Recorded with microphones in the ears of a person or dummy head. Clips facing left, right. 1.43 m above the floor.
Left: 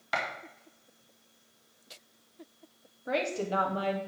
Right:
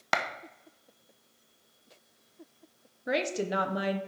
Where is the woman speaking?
25° right (ahead or behind), 1.0 m.